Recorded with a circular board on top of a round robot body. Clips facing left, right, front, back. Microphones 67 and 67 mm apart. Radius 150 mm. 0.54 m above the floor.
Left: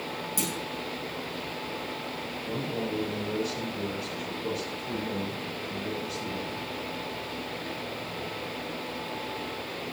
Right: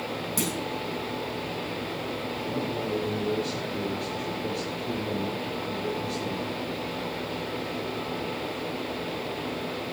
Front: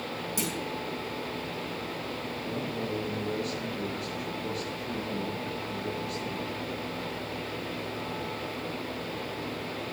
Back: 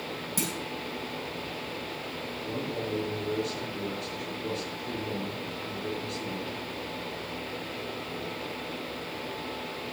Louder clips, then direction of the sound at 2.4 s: Right 1 dB, back 1 dB; 115° right.